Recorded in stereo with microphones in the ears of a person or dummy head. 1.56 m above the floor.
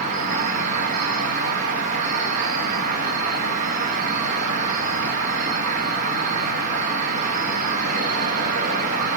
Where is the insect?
45° right (ahead or behind), 0.9 m.